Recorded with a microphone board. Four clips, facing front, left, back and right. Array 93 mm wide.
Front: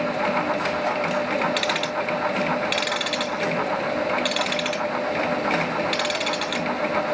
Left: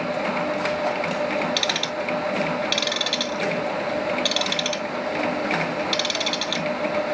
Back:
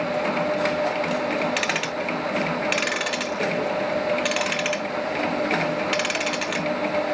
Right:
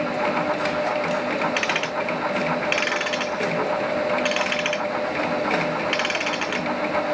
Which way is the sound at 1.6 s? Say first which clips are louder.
Right 2 dB, front 1 dB; 115° right.